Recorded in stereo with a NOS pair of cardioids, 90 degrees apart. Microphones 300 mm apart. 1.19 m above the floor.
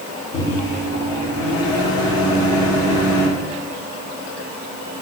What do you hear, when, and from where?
0.3 s a microwave: 70° left, 3 m